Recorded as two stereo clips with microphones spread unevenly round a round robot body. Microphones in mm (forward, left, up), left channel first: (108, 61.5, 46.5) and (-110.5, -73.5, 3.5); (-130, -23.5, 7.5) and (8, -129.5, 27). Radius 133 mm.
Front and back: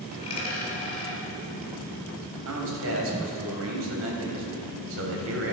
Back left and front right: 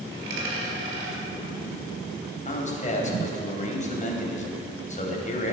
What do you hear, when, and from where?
0.1 s a dropped coin: 35° right, 4 m
2.5 s a man speaking: 175° right, 3 m